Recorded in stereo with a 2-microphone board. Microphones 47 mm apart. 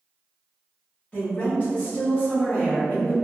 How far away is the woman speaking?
About 1.5 m.